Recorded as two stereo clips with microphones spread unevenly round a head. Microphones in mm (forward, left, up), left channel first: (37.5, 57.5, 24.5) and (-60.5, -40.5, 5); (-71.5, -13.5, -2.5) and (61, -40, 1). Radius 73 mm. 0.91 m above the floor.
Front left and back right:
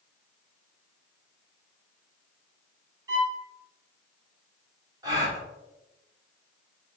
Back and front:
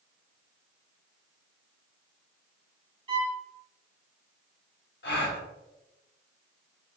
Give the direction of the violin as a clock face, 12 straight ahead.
2 o'clock.